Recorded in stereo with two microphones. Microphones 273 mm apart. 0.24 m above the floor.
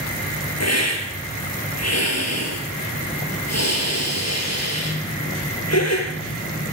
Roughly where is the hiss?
Left.